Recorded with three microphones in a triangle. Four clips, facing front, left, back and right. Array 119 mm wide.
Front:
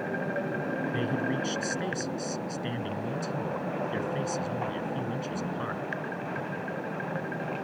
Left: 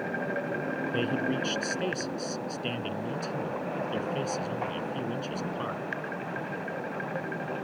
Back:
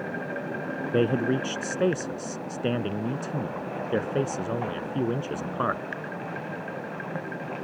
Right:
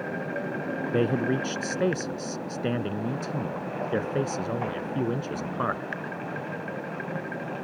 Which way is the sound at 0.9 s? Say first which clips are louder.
Right 6 dB, back 10 dB; 155° right.